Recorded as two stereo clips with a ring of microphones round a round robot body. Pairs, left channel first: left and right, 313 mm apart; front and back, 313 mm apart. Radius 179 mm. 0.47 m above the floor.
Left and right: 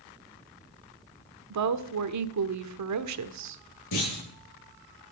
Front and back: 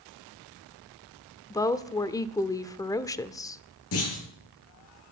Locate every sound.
1.5 s a woman speaking: 80° right, 1.2 m
3.9 s a clunk: 50° left, 9 m